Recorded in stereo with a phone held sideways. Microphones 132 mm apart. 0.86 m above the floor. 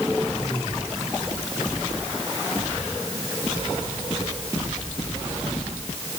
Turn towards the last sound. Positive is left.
No sound to turn to.